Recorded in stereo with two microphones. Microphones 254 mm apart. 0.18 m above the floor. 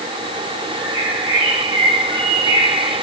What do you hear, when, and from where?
0.8 s a bird: 40° left (ahead or behind), 4.5 m